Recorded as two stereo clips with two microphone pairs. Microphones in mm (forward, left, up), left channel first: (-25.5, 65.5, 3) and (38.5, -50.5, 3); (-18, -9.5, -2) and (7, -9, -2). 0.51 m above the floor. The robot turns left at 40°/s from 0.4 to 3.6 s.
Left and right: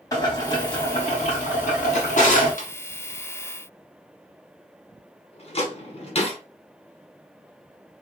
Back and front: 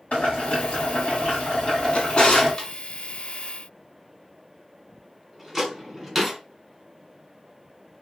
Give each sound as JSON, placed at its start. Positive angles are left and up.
{"t": 0.1, "sound": "boiling", "azimuth_deg": 180, "distance_m": 3.0}
{"t": 1.9, "sound": "a drawer", "azimuth_deg": 145, "distance_m": 1.4}